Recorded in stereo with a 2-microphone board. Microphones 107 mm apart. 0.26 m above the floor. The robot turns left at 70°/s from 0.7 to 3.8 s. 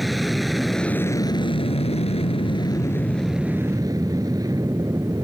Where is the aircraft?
Straight behind; by 5.2 s 35° right.